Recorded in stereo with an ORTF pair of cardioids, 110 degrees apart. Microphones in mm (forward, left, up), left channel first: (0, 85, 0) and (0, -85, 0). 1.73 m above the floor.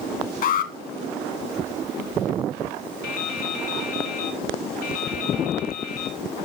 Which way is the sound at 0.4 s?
60° left.